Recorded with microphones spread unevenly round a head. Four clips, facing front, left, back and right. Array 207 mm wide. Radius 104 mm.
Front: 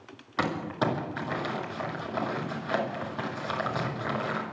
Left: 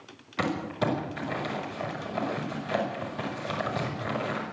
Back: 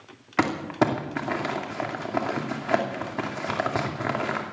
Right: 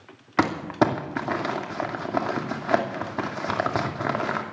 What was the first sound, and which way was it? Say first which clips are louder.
Crumpling: right 7 dB, back 5 dB; 125° right.